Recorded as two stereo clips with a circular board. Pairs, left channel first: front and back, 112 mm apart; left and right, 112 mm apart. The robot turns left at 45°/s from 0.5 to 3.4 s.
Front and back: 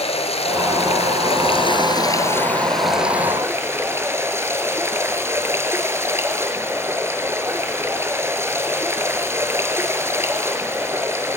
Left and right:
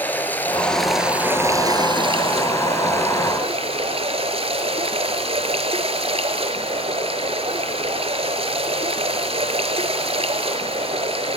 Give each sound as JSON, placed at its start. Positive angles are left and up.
{"t": 0.0, "sound": "running water", "azimuth_deg": 15, "distance_m": 2.0}